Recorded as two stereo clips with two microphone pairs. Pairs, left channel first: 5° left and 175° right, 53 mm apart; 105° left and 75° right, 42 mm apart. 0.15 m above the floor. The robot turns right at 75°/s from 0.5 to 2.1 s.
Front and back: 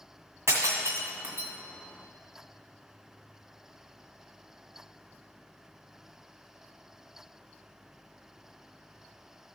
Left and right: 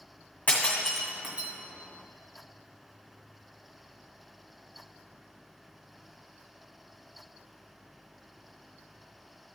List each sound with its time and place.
0.5 s breaking glass: 165° left, 2 m; by 1.5 s 120° right, 2 m